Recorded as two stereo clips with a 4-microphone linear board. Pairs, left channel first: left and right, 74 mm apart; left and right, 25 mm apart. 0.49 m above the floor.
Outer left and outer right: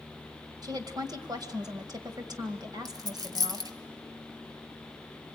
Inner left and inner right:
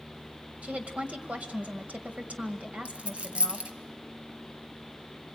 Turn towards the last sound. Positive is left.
turn(degrees=-55)  # may be behind; listen again after turning